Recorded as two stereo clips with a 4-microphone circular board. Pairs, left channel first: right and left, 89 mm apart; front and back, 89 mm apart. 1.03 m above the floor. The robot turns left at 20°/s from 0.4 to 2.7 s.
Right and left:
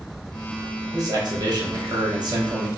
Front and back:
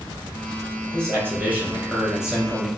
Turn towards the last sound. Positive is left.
turn(degrees=90)